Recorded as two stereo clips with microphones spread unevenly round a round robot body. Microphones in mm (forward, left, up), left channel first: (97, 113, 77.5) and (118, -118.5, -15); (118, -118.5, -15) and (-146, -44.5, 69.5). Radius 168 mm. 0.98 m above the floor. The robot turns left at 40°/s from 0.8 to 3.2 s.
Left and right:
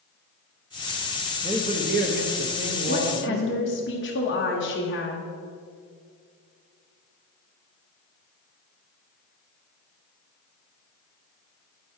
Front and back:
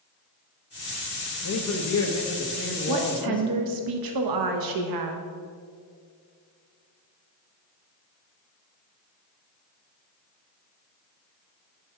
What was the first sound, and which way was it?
A man speaking, 15° right.